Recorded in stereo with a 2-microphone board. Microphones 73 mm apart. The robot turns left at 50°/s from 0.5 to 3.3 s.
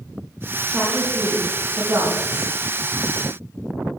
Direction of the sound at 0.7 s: 5° right (ahead or behind).